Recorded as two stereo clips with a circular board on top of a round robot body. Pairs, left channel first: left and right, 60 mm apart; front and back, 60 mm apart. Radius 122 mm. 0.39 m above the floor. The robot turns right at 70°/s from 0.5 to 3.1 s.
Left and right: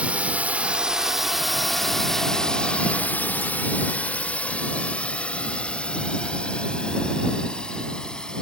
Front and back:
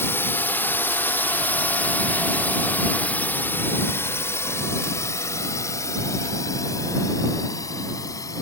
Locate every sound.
0.0 s a drone: 30° right; by 8.4 s 15° left